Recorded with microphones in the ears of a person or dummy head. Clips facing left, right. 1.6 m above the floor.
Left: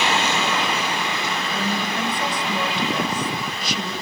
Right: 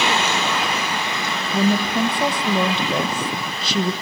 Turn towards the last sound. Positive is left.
turn(degrees=-30)  # may be behind; listen again after turning